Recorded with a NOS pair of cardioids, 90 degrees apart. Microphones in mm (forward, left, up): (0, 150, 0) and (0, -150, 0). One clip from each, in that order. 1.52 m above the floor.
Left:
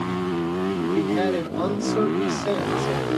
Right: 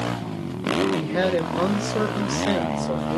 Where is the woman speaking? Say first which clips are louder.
Even; 35° right, 1.8 m.